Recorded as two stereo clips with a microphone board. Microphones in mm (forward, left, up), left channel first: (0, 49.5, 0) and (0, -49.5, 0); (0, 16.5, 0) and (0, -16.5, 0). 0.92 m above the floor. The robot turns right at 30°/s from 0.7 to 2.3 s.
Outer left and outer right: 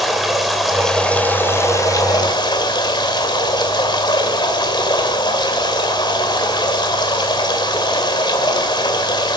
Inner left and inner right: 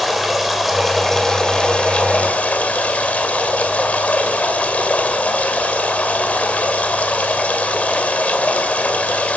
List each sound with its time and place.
0.0 s running water: straight ahead, 2 m; by 9.4 s 50° left, 2 m